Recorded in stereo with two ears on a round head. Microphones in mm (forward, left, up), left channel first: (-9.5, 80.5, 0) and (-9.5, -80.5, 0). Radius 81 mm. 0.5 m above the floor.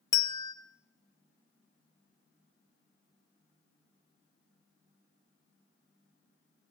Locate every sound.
0.1 s a bell: 20° left (ahead or behind), 0.7 m